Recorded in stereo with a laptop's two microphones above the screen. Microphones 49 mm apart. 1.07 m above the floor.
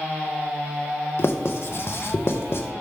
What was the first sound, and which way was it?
Writing, 55° left (ahead or behind).